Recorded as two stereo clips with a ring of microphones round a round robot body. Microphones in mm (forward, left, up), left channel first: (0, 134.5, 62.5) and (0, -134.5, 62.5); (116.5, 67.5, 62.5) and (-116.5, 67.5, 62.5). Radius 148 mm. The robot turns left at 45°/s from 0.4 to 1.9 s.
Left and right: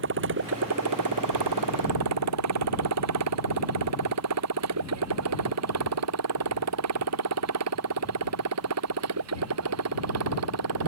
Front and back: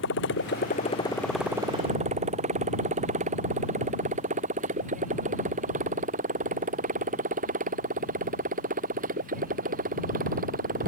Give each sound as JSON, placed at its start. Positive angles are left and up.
{"t": 0.0, "sound": "a motorcycle", "azimuth_deg": -45}